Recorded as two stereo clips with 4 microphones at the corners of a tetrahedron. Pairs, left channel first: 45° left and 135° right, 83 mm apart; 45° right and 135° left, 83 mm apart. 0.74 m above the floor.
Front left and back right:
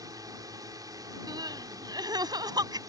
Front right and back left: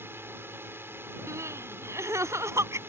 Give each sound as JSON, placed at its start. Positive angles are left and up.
{"t": 0.0, "sound": "a drone", "azimuth_deg": -165}
{"t": 1.3, "sound": "crying", "azimuth_deg": -170}